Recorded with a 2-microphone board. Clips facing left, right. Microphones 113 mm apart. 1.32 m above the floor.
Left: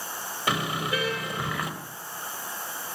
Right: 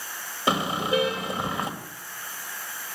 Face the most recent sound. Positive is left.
turn(degrees=-25)  # may be behind; listen again after turning